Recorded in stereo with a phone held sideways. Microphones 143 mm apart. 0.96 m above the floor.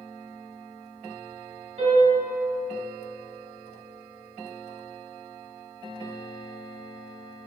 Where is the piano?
45° right (ahead or behind), 1.3 m.